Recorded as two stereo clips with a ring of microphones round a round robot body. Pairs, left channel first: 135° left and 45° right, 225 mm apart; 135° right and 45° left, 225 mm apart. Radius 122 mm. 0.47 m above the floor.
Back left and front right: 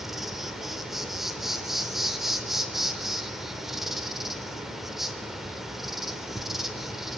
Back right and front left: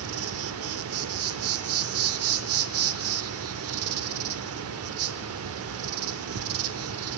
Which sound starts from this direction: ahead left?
An insect, at 0.0 s.